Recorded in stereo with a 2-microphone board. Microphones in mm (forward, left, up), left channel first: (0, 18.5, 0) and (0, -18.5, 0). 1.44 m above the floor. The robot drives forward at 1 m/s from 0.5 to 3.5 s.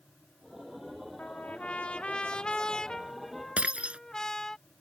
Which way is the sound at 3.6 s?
35° right (ahead or behind).